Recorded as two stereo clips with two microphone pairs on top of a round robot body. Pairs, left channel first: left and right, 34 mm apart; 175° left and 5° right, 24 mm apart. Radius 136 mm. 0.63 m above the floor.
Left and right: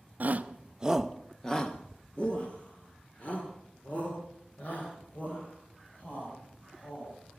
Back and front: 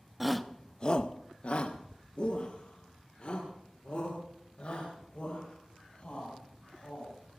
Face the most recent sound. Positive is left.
turn(degrees=135)